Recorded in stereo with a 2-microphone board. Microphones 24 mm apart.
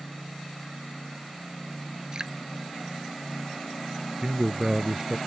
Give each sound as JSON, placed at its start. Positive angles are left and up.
{"t": 2.1, "sound": "dripping", "side_deg": -35}
{"t": 4.2, "sound": "a man speaking", "side_deg": -25}